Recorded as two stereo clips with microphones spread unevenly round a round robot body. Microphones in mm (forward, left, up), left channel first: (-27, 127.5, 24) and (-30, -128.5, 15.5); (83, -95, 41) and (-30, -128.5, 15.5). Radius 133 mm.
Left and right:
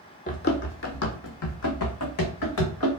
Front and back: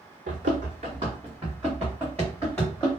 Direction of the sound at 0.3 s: 150° left.